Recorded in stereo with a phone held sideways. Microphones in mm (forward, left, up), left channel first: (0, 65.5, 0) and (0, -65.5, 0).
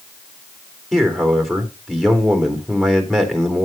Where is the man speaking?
Centre (ahead or behind), 3.5 m.